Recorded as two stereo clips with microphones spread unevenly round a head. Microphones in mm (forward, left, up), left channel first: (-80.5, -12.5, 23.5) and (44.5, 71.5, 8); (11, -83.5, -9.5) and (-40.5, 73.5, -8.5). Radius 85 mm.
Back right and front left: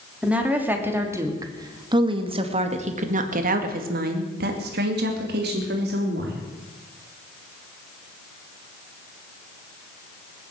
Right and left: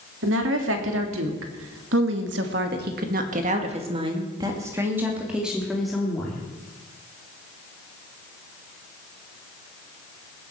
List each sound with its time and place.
0.2 s a woman speaking: 115° left, 3.5 m; by 6.4 s 15° left, 3.5 m